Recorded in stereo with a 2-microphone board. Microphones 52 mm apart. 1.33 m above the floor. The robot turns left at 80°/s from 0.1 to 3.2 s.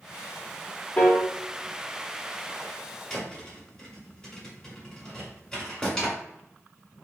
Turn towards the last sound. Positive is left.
turn(degrees=15)  # may be behind; listen again after turning